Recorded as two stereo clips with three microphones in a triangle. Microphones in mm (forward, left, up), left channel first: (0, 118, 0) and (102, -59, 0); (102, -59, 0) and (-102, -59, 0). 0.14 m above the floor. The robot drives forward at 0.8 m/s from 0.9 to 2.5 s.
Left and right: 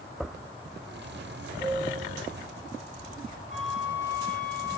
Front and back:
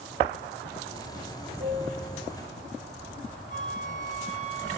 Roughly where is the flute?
Behind left.